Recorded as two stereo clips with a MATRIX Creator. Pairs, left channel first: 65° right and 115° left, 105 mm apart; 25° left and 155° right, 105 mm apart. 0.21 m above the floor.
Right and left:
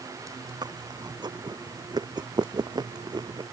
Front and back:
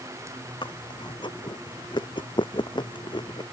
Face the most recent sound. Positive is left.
turn(degrees=65)